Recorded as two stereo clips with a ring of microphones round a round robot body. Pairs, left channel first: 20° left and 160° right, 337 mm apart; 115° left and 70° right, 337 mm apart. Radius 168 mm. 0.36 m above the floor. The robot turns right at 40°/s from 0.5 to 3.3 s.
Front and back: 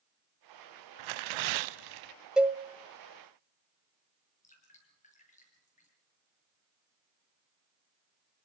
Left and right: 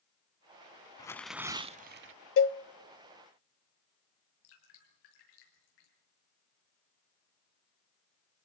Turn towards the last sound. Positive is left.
turn(degrees=90)